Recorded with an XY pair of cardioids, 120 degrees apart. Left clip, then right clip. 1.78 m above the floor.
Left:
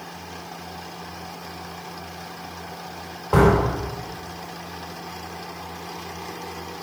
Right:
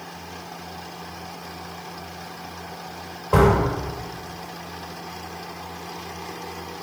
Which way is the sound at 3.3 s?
5° left.